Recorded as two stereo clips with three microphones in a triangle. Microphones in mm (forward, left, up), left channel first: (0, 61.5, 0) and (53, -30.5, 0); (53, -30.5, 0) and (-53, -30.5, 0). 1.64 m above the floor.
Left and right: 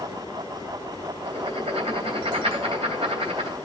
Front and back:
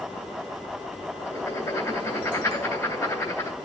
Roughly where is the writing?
Ahead right.